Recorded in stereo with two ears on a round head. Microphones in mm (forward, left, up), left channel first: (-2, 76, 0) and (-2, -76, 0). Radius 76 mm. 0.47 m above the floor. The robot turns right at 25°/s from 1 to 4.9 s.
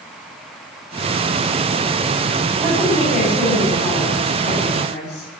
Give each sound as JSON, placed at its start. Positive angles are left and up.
{"t": 2.6, "sound": "a woman speaking", "azimuth_deg": -15, "distance_m": 3.5}